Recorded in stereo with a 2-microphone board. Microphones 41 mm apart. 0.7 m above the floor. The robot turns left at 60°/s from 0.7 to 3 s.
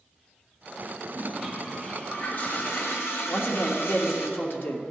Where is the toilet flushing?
160° right, 1.8 m; by 4.3 s 85° left, 1.8 m.